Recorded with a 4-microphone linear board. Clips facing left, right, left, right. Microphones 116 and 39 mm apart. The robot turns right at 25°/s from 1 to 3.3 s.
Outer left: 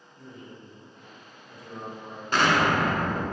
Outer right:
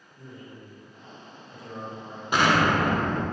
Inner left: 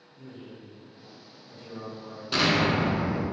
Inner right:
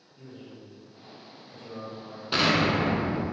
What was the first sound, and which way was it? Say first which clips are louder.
A man speaking: outer right 1 dB, inner left 1 dB; 140° right.